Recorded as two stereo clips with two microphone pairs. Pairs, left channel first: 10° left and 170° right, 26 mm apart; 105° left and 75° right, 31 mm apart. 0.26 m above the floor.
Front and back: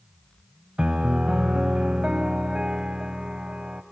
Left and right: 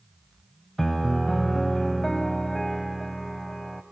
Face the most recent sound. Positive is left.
turn(degrees=-175)